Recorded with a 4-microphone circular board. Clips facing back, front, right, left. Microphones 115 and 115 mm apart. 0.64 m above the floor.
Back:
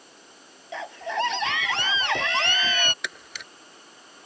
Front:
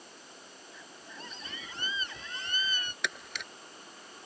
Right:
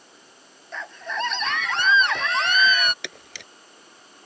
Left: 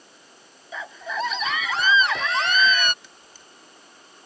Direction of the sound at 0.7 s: 175° left.